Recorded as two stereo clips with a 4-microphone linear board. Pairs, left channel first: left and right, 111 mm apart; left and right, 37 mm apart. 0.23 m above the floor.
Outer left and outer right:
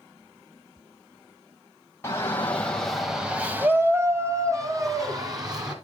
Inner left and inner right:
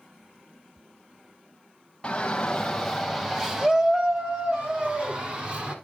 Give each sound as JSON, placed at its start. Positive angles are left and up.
{"t": 2.0, "sound": "a shout", "side_deg": 25, "distance_m": 1.0}